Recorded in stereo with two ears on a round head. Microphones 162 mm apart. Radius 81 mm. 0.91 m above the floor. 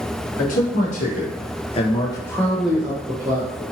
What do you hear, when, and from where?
0.4 s a man speaking: 45° left (ahead or behind), 1.1 m; by 3.6 s 20° right (ahead or behind), 0.9 m